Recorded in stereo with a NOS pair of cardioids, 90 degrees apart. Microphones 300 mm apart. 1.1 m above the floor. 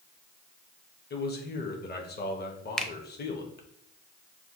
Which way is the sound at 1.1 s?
35° left.